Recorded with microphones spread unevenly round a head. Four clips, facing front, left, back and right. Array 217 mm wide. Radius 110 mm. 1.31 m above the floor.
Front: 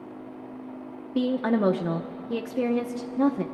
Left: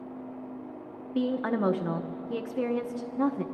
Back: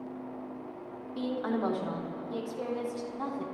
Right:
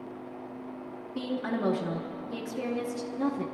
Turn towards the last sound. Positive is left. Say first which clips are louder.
# left 4 dB, front 8 dB
turn(degrees=15)